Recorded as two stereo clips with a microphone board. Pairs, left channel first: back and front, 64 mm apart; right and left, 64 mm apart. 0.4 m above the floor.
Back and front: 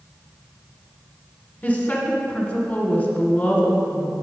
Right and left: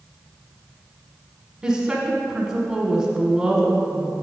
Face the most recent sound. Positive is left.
turn(degrees=155)